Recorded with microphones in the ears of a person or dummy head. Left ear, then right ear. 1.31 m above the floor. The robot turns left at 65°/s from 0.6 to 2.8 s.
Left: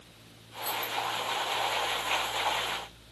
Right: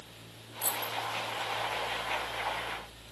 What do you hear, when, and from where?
0.6 s keys jangling: 80° right, 2.0 m; by 0.9 s 60° right (ahead or behind), 2.0 m